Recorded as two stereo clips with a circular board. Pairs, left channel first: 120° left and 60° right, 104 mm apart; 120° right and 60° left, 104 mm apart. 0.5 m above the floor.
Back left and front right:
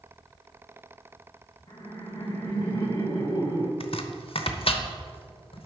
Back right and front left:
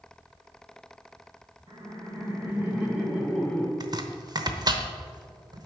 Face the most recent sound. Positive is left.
turn(degrees=105)